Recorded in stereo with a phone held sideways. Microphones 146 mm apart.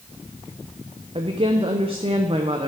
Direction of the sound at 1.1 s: 40° right (ahead or behind).